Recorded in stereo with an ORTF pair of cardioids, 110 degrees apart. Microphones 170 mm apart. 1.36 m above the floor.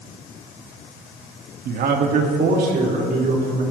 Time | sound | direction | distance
1.6 | a man speaking | 65° right | 1.6 m